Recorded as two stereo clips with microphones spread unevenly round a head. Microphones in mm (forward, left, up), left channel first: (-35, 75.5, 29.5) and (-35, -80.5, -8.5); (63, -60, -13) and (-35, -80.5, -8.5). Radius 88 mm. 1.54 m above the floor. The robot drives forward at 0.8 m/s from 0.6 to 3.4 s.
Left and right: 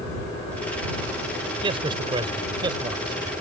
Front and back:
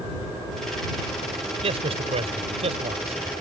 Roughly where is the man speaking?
Behind right.